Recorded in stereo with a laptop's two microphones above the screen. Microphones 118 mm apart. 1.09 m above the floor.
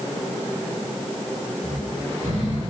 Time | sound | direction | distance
1.6 | snoring | 85° right | 4.5 m